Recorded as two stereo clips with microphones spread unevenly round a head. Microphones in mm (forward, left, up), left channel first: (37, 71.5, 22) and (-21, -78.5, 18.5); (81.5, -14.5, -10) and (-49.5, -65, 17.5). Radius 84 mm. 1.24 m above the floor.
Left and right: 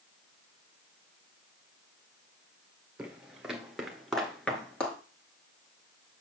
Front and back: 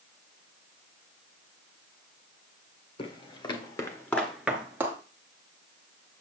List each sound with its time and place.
3.0 s footsteps: 25° right, 1.6 m; by 5.0 s 150° left, 1.5 m